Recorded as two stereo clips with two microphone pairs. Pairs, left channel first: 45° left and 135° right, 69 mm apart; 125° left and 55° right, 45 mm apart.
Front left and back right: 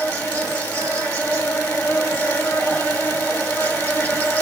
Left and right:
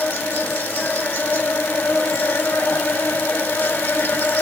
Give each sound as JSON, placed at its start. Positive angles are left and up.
{"t": 0.0, "sound": "an insect", "azimuth_deg": 105, "distance_m": 2.5}